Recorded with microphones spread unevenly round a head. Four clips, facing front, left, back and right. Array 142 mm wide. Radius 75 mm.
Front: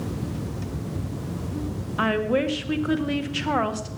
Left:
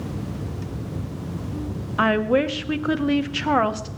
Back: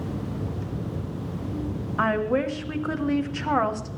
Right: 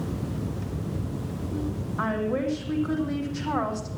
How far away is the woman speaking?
About 1.0 m.